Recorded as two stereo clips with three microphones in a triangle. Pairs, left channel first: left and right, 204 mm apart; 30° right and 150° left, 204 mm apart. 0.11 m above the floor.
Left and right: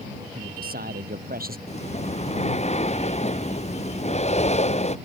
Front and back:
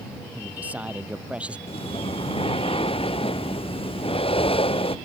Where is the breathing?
35° left.